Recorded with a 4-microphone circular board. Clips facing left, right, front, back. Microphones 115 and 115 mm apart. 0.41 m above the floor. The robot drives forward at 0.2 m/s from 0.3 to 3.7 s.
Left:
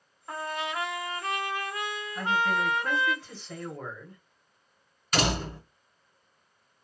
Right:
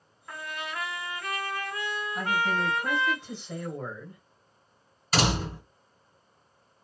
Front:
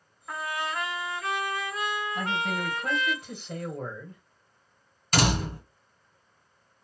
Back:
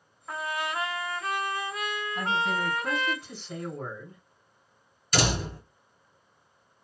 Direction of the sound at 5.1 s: 35° right.